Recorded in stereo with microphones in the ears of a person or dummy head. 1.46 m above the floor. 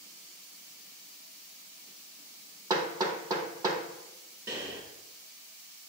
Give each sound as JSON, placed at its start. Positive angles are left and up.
{"t": 2.7, "sound": "hammering", "side_deg": -25, "distance_m": 1.0}
{"t": 4.5, "sound": "breathing", "side_deg": -20, "distance_m": 1.6}